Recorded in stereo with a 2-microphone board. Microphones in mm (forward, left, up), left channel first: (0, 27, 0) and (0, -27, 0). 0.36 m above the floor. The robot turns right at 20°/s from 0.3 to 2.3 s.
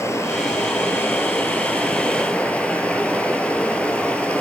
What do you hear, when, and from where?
0.0 s running water: 115° left, 1.7 m; by 4.4 s 155° left, 1.7 m